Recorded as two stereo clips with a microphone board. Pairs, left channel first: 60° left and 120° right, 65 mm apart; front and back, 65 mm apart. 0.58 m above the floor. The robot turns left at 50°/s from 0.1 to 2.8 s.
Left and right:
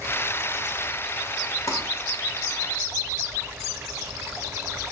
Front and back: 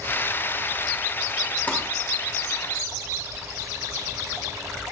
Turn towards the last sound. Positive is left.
turn(degrees=5)